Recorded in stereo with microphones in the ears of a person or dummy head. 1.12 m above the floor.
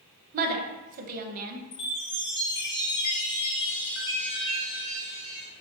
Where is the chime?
35° left (ahead or behind), 1.0 m.